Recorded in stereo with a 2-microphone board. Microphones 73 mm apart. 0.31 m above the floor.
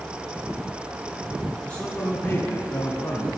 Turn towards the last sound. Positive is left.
turn(degrees=45)  # may be behind; listen again after turning